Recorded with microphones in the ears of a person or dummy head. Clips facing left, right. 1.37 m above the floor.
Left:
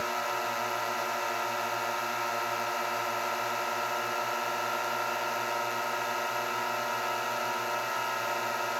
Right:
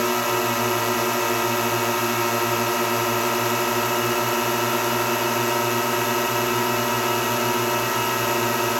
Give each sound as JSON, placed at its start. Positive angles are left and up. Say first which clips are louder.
{"t": 0.0, "sound": "a drone", "louder": "right 11 dB", "side_deg": -80}